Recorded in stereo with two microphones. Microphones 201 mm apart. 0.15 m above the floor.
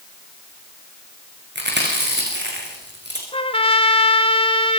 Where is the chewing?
65° right (ahead or behind), 8 m.